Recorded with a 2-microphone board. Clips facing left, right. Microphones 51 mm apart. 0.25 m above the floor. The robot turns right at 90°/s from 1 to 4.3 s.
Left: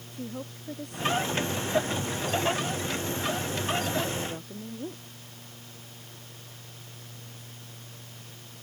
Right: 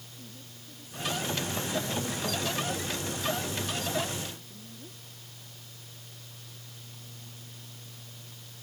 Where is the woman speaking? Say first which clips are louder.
Left 15 dB; 115° left; by 5.0 s 55° left.